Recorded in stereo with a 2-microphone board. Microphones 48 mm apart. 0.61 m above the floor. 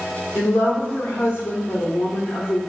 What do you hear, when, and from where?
0.3 s a woman speaking: 60° left (ahead or behind), 1.0 m